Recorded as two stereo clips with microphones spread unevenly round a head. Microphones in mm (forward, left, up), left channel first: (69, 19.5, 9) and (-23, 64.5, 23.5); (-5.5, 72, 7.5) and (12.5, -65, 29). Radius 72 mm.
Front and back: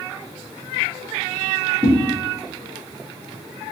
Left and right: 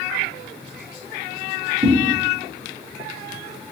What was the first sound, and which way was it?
A whoosh, 140° right.